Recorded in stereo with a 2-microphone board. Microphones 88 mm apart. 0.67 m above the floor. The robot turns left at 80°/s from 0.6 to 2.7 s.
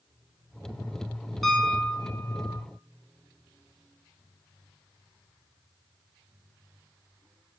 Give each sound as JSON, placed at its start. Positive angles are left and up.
{"t": 1.4, "sound": "a piano", "azimuth_deg": 180, "distance_m": 1.8}